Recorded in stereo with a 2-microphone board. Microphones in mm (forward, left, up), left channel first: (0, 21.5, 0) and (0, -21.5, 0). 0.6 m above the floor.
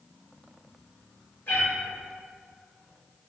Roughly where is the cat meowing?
Left.